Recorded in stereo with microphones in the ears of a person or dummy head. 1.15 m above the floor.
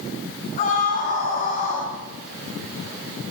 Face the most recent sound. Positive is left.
turn(degrees=40)  # may be behind; listen again after turning